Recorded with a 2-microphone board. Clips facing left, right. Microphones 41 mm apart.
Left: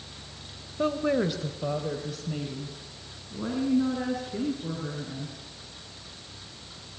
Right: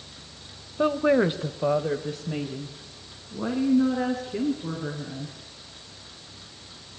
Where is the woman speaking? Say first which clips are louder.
Right 5 dB; 20° right (ahead or behind), 1.1 m; by 5.4 s 15° right (ahead or behind), 5 m.